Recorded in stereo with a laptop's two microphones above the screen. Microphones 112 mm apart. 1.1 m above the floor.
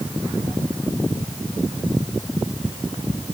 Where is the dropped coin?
I don't hear a dropped coin.